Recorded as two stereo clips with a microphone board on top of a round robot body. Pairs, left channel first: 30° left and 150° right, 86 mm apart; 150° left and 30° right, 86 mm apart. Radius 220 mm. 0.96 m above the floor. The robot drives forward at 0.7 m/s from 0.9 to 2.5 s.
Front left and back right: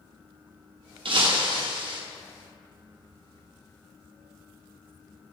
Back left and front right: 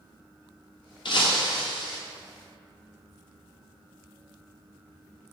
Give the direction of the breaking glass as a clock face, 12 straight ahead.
6 o'clock.